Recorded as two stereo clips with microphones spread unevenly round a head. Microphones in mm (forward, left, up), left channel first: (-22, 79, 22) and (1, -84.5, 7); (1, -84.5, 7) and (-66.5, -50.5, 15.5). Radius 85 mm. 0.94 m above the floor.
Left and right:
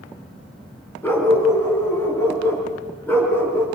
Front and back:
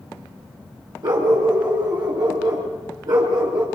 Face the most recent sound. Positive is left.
turn(degrees=175)